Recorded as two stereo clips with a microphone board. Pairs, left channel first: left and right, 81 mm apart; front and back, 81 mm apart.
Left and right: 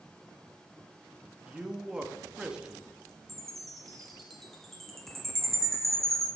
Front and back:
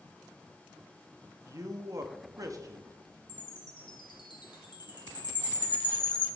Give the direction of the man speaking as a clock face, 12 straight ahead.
6 o'clock.